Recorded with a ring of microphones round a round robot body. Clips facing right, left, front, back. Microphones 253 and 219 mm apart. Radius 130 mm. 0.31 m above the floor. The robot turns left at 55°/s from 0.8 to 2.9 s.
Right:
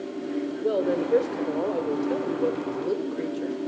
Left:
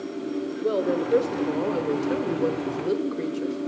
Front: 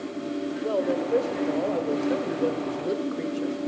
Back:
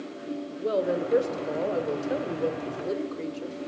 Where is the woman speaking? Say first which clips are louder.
Left 1 dB, back 1 dB; 160° left, 1.5 m; by 3.6 s 45° left, 1.5 m.